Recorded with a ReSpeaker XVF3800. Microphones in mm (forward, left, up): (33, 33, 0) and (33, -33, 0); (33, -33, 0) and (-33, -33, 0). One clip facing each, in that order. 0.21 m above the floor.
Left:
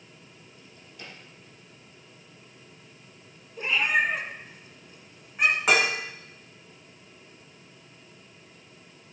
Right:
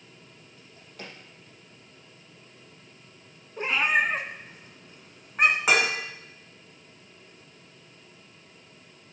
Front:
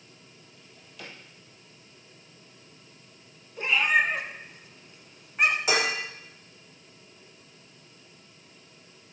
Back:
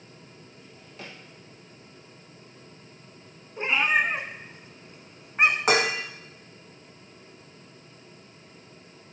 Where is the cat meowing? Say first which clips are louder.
Right 1 dB, even; 125° right, 1.0 m.